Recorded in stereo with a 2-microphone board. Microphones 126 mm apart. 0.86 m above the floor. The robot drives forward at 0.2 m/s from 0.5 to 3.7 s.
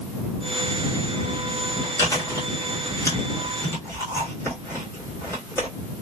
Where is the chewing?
25° left (ahead or behind), 1.3 m; by 5.7 s 20° left (ahead or behind), 1.6 m.